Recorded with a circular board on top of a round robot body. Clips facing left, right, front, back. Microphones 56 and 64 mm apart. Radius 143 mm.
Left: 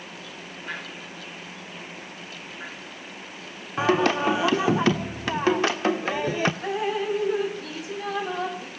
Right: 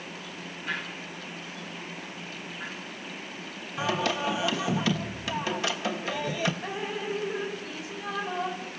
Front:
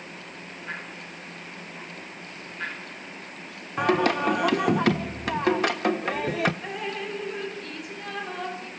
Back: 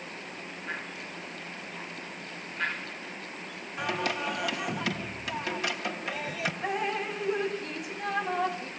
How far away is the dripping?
About 4.5 m.